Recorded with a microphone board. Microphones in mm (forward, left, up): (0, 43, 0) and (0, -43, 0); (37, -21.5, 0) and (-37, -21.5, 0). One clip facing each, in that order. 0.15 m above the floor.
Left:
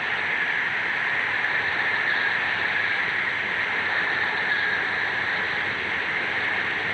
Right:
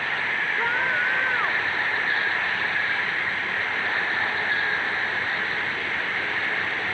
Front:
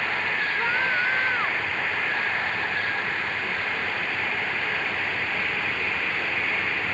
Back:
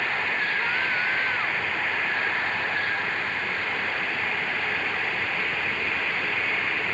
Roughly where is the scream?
Ahead right.